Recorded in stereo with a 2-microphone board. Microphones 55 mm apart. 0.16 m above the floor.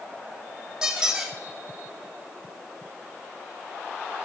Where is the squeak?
15° right (ahead or behind), 2.5 m.